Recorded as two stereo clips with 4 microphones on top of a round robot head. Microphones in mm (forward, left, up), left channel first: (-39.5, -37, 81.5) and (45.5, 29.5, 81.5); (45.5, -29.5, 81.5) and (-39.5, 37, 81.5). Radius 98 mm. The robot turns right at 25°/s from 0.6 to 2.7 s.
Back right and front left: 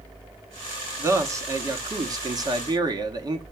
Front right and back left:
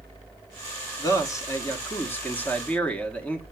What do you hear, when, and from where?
1.0 s a man speaking: 10° right, 1.5 m; by 3.4 s 35° left, 1.5 m